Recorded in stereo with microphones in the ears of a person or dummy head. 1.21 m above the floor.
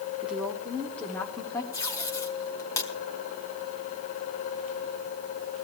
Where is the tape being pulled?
20° left (ahead or behind), 1.2 m.